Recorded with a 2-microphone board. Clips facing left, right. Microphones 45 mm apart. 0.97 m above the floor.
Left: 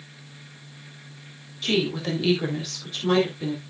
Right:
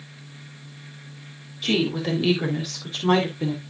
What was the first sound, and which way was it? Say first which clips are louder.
A woman speaking: right 1 dB; 10° right (ahead or behind).